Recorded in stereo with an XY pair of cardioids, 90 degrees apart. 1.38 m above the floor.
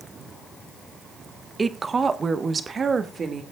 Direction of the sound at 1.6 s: 30° right.